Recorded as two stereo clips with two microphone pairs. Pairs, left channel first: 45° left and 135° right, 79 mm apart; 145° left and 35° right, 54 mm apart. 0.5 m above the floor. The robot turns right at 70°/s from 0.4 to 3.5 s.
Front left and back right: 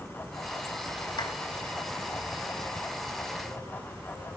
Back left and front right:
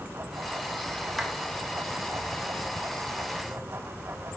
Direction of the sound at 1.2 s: 55° left.